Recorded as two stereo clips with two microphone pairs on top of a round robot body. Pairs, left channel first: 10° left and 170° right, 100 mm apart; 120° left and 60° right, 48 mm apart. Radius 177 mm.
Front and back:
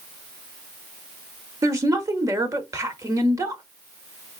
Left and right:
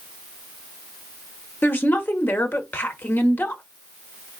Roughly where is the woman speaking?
Behind left.